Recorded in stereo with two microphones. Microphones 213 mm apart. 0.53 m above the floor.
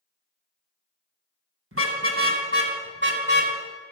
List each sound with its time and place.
1.7 s a car horn: 85° right, 2.5 m; by 3.5 s 50° right (ahead or behind), 2 m